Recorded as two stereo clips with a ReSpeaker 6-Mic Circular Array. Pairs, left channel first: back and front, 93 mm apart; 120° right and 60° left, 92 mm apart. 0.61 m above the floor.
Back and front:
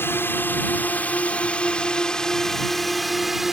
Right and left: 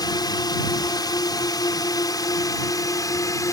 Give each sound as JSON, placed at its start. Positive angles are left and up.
{"t": 0.0, "sound": "a drone", "azimuth_deg": -125}